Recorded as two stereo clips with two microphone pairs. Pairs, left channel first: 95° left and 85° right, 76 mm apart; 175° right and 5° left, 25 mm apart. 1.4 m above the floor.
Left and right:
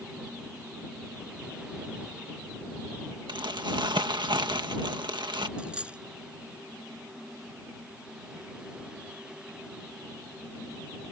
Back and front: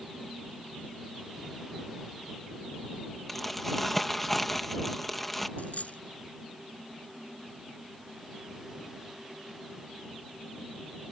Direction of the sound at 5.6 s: 160° right.